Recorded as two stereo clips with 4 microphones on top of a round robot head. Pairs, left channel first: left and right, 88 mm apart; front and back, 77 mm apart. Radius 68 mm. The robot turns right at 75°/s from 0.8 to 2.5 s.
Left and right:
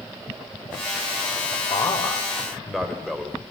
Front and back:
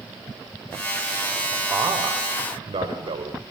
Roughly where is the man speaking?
Behind left.